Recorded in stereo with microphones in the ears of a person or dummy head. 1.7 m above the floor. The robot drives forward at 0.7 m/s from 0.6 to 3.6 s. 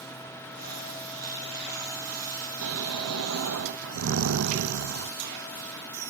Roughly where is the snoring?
Right.